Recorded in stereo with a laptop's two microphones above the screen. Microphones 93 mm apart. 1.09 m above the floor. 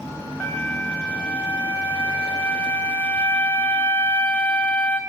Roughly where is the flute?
Centre.